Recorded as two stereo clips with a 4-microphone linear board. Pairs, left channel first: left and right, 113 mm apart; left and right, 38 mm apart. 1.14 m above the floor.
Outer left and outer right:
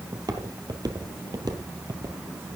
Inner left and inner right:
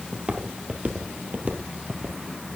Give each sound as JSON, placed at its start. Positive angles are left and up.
{"t": 0.1, "sound": "footsteps", "side_deg": -35, "distance_m": 1.4}